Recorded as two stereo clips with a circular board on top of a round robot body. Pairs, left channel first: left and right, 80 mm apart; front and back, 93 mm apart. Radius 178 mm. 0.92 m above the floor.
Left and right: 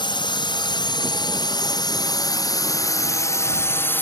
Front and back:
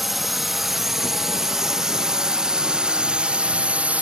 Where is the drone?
90° left; by 4.0 s 120° left.